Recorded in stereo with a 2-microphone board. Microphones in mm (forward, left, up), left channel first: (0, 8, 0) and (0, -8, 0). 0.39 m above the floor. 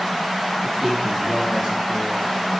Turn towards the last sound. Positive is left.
turn(degrees=-10)  # may be behind; listen again after turning